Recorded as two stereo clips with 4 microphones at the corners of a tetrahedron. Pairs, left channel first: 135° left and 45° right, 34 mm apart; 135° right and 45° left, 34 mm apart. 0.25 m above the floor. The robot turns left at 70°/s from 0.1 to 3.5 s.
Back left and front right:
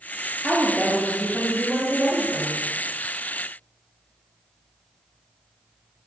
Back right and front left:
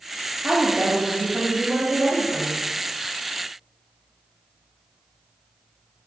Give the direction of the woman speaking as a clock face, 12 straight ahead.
10 o'clock.